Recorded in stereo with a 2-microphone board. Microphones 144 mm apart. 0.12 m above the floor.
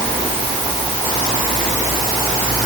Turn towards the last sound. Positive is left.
No sound to turn to.